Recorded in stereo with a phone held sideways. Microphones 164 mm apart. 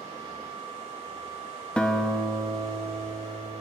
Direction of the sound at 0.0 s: 40° right (ahead or behind).